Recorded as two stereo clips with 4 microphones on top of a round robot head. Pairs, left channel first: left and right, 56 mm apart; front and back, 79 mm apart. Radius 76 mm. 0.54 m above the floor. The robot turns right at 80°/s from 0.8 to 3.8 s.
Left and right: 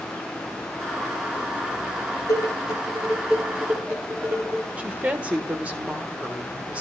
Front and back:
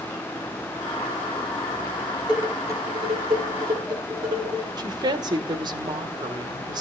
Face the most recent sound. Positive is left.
turn(degrees=-155)